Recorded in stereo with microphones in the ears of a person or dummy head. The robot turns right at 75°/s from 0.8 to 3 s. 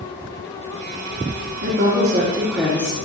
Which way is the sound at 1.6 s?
80° right.